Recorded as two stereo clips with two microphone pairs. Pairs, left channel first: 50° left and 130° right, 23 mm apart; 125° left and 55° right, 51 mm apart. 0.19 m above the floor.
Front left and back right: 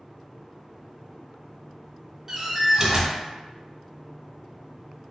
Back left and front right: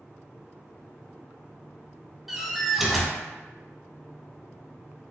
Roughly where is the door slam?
Behind right.